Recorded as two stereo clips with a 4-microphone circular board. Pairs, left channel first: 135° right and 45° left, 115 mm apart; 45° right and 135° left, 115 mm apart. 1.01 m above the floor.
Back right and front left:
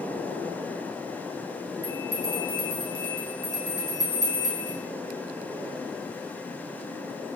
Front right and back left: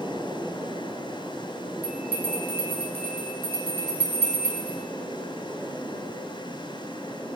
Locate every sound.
1.8 s a bell: 100° right, 1.0 m